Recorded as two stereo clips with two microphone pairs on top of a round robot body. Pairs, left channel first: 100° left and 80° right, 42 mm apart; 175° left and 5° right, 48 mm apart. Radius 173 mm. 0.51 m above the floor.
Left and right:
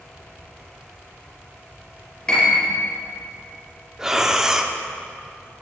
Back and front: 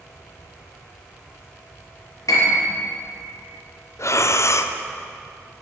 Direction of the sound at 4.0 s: 160° right.